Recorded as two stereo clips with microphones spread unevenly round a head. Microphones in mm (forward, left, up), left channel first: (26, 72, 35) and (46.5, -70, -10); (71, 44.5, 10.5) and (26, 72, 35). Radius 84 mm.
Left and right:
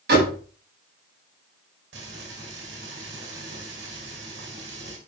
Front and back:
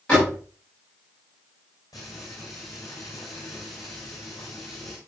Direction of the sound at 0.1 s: 115° right.